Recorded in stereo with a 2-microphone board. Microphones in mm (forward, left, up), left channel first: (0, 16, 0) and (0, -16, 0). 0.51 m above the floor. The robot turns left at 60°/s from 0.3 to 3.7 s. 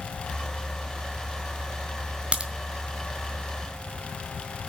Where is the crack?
35° right (ahead or behind), 1.5 m; by 2.5 s 25° right (ahead or behind), 1.5 m.